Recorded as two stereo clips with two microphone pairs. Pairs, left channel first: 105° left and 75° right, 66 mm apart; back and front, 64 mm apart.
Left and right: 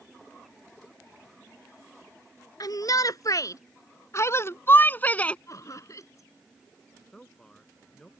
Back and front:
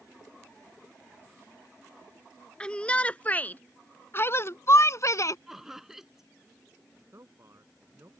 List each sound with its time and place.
2.6 s a shout: 105° left; by 5.4 s 170° left
5.5 s laughter: 85° left
7.1 s a man speaking: 25° left